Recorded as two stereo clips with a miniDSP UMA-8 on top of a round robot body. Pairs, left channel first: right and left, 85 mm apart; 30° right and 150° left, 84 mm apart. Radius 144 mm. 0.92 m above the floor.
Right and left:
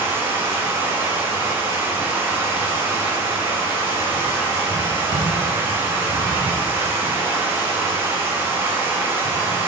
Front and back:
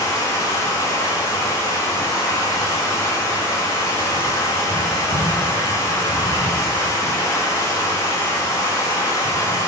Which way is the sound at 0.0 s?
25° left.